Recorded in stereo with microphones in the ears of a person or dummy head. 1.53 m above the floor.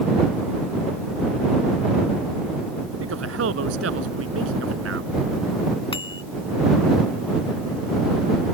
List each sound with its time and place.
3.0 s a man speaking: 85° right
5.9 s a bicycle bell: 30° left (ahead or behind)